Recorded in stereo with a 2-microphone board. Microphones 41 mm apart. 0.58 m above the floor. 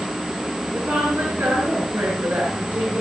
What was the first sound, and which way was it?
A woman speaking, 75° right (ahead or behind).